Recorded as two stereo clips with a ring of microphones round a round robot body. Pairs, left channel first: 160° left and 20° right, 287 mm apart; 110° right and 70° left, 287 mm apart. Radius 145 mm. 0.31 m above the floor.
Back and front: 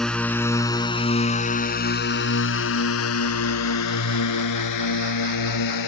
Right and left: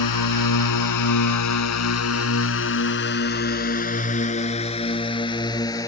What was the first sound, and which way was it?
A drone, 115° right.